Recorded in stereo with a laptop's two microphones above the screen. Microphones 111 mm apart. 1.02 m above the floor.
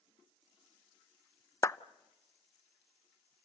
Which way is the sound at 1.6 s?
30° left (ahead or behind).